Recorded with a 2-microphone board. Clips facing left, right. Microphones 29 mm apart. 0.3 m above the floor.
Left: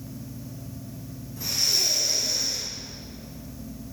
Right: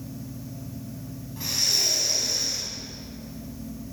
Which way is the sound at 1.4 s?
45° right (ahead or behind).